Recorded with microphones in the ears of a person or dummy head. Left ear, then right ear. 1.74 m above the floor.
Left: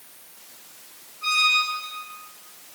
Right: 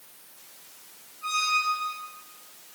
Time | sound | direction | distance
1.2 | a squeak | 50° left (ahead or behind) | 3 m